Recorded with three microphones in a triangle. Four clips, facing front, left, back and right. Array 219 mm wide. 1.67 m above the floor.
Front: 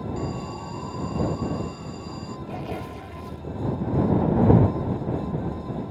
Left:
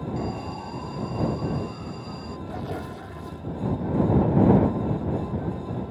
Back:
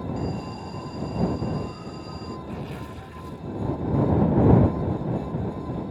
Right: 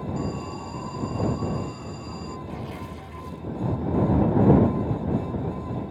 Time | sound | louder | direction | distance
0.2 | an alarm | even, even | 110° left | ?
2.5 | tearing paper | left 3 dB, front 3 dB | 40° left | ?